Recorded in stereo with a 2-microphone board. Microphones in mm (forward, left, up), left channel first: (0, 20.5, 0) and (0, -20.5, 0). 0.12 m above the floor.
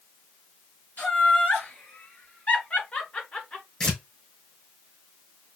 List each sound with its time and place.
1.0 s laughter: 45° left (ahead or behind), 2.5 m; by 3.6 s 20° left (ahead or behind), 1.9 m
3.8 s tearing paper: 20° left (ahead or behind), 3.5 m